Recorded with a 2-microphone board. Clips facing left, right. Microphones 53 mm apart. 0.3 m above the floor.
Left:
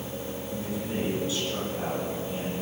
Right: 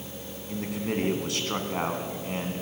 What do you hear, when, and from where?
0.5 s a man speaking: 65° right (ahead or behind), 2.5 m